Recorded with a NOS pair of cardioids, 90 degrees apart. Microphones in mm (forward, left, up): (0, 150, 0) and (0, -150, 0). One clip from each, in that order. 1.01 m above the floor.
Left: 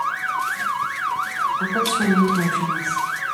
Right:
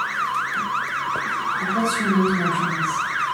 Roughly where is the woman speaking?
Ahead left.